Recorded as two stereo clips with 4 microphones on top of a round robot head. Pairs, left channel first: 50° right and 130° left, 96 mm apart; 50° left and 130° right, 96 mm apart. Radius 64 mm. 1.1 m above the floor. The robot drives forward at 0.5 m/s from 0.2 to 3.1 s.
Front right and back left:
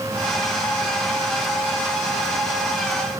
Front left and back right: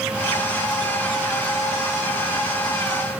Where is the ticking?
No ticking in this recording.